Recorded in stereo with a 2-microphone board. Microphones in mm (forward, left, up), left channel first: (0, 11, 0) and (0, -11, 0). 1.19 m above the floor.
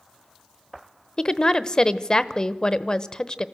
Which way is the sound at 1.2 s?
35° left (ahead or behind).